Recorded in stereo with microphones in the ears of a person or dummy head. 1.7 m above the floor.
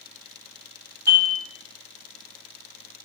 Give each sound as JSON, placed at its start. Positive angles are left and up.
{"t": 1.1, "sound": "dishes clattering", "side_deg": -20, "distance_m": 1.6}